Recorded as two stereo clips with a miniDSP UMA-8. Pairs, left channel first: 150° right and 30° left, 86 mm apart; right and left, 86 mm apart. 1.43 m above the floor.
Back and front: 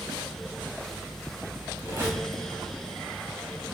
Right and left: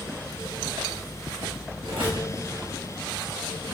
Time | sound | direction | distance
1.8 | a squeak | 90° left | 1.1 m